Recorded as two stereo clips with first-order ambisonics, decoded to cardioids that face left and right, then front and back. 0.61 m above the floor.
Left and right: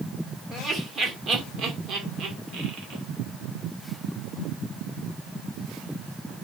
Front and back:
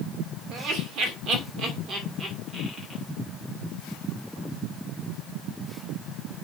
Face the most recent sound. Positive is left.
turn(degrees=-110)